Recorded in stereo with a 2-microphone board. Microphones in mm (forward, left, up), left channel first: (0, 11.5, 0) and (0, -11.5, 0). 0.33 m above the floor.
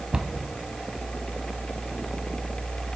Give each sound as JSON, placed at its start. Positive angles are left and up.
{"t": 0.1, "sound": "a cupboard door", "side_deg": -40, "distance_m": 1.3}